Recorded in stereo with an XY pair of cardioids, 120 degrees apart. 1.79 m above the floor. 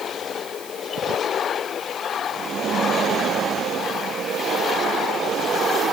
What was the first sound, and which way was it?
Only background noise.